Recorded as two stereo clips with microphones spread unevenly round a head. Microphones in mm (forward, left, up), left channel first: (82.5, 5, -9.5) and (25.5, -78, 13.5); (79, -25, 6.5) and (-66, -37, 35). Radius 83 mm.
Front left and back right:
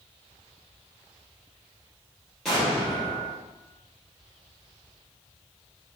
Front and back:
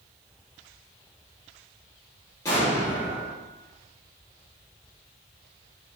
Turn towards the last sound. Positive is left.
turn(degrees=-60)